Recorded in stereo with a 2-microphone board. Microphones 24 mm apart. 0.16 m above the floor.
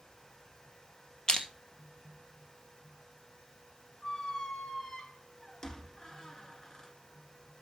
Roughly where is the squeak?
Left.